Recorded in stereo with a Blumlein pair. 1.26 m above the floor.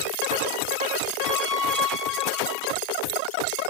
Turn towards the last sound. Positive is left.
turn(degrees=-15)